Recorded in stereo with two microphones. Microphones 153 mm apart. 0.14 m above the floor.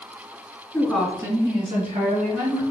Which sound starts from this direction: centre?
A woman speaking, at 0.7 s.